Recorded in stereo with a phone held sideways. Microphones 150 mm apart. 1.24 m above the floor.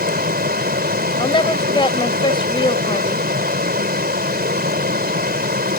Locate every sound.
0.0 s running water: 80° right
1.2 s a woman speaking: 30° left (ahead or behind)